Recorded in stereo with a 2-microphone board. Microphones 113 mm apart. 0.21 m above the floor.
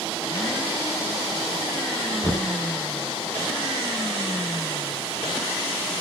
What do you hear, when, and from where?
2.2 s knocking: 15° left (ahead or behind), 1.6 m